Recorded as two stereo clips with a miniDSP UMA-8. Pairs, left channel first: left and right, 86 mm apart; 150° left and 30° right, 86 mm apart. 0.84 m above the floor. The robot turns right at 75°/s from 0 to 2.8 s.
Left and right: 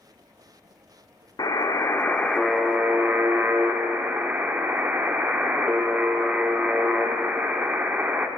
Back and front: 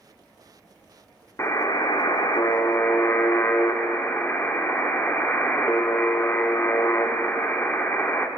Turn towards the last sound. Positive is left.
turn(degrees=-155)